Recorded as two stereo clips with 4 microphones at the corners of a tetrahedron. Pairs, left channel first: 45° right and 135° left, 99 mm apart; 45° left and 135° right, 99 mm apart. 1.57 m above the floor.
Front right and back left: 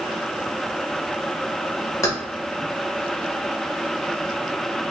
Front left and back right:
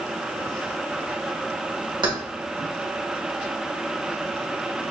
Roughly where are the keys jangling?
Right.